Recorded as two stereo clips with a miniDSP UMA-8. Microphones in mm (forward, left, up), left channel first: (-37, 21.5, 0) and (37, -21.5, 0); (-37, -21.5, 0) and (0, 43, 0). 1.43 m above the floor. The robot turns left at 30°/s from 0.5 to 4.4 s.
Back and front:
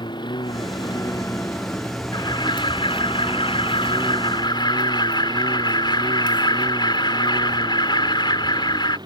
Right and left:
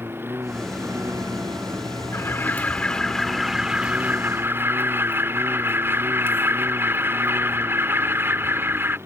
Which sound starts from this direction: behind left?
A lawn mower, at 0.0 s.